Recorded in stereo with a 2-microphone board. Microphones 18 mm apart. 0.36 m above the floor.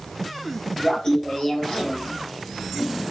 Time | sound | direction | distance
0.8 | laughter | 40° left (ahead or behind) | 2.5 m